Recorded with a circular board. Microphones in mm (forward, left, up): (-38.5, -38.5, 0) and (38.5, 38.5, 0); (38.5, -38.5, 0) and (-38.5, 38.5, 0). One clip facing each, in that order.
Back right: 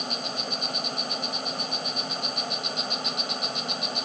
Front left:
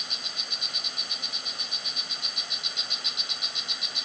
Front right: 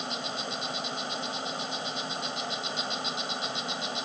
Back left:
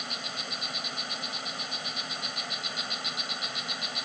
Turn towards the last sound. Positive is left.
turn(degrees=-105)